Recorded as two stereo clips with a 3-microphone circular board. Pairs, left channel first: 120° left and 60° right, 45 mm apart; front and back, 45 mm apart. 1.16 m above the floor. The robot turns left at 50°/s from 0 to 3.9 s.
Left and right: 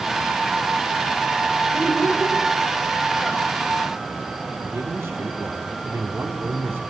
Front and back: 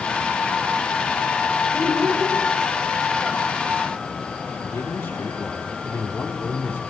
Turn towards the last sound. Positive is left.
turn(degrees=-35)